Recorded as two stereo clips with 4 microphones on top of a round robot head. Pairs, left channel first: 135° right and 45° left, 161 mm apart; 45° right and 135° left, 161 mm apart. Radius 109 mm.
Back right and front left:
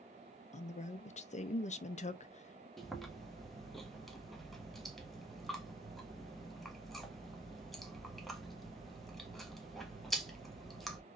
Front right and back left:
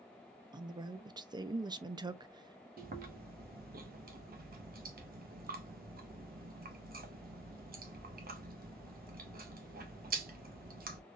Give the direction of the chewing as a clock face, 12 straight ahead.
8 o'clock.